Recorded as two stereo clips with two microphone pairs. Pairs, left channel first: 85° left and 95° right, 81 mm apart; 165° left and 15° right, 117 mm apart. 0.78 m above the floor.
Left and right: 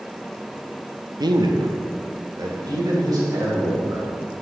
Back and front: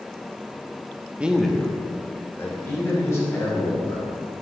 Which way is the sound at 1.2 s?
90° right.